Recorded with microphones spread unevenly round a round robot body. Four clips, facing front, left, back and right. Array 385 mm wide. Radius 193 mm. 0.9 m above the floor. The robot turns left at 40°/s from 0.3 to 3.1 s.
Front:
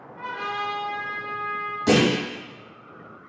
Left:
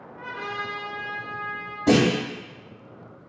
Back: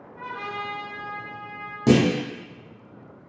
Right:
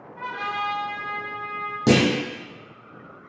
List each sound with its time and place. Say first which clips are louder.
0.2 s a trumpet: right 4 dB, front 3 dB; 85° right, 0.8 m; by 1.8 s 140° right, 0.8 m
1.9 s a clunk: even, back 1 dB; 100° right, 1.0 m; by 2.1 s 110° right, 1.0 m